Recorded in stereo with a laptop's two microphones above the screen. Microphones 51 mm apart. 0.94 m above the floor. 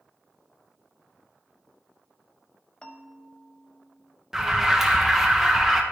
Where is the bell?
15° left (ahead or behind), 0.7 m.